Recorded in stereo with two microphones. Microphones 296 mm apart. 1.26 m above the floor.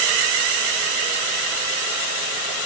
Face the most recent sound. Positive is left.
No sound to turn to.